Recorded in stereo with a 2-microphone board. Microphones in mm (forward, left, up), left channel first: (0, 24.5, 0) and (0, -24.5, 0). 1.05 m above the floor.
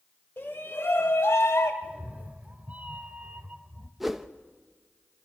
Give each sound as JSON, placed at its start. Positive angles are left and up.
{"t": 0.4, "sound": "a shout", "side_deg": 40, "distance_m": 4.0}
{"t": 1.8, "sound": "a cat meowing", "side_deg": -30, "distance_m": 1.1}
{"t": 4.0, "sound": "a whoosh", "side_deg": -5, "distance_m": 0.8}